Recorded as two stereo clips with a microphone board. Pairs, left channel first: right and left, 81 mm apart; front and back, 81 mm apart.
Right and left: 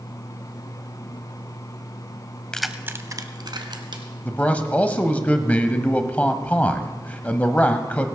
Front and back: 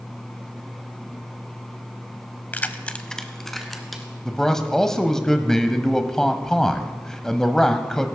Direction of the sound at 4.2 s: 70° right.